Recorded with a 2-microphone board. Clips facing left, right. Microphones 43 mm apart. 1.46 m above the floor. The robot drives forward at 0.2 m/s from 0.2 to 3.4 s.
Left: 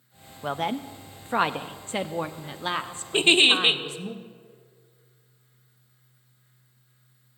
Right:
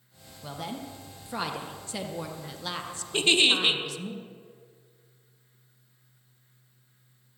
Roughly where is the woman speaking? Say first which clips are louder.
Left 9 dB; left.